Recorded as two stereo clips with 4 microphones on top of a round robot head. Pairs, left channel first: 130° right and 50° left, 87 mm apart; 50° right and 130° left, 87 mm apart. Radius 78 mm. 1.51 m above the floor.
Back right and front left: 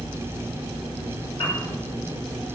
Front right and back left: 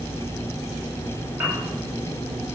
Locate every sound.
1.4 s a piano: 165° right, 9 m